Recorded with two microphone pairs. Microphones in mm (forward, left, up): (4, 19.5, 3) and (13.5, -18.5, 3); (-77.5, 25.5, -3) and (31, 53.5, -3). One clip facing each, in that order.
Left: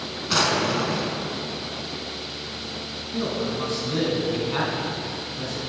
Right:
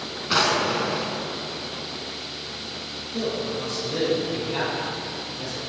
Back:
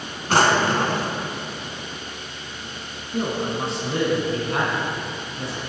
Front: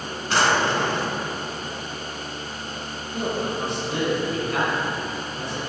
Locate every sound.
0.3 s a drawer: 150° right, 0.8 m
3.1 s a man speaking: 145° left, 2 m